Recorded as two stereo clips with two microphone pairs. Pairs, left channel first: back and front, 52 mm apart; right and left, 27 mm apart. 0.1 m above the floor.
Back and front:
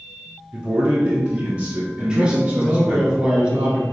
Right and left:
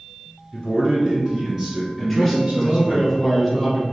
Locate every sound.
0.5 s a man speaking: 10° right, 1.3 m; by 3.0 s 65° left, 1.9 m
2.0 s a man speaking: 10° right, 1.5 m